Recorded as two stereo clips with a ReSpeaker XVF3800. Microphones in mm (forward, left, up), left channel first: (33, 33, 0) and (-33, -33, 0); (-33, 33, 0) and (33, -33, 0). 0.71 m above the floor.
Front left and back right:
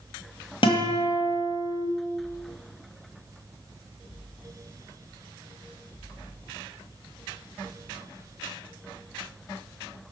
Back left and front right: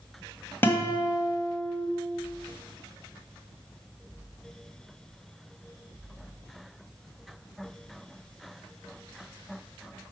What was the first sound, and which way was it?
A guitar, 65° left.